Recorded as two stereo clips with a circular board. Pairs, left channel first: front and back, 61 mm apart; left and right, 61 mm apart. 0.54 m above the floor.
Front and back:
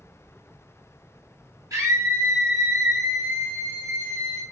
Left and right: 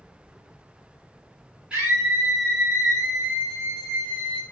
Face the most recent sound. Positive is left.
turn(degrees=-150)